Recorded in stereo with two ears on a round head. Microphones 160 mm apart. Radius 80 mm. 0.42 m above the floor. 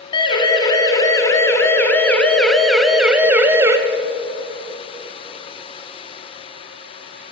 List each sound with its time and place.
0.1 s a siren: 30° left (ahead or behind), 3 m; by 3.8 s 20° right (ahead or behind), 1.9 m